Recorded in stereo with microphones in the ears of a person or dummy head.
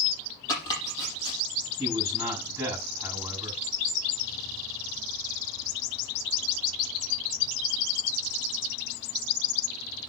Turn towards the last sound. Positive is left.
turn(degrees=-5)  # may be behind; listen again after turning